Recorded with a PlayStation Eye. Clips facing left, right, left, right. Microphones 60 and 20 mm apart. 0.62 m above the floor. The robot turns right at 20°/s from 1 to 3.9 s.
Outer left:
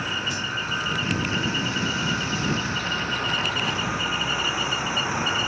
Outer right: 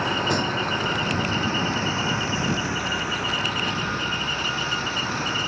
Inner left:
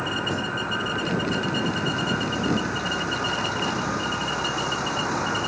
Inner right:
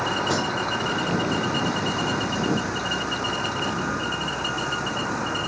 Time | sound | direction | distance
0.0 | a vehicle | 60° right (ahead or behind) | ?